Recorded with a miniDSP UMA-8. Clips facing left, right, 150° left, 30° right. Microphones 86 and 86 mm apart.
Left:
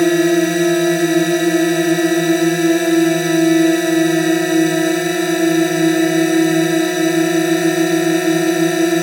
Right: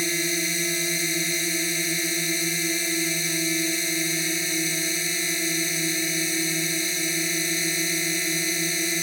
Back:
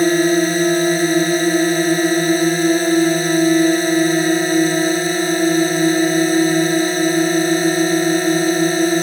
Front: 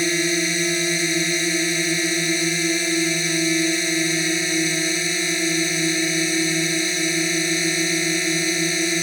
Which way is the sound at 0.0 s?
115° left.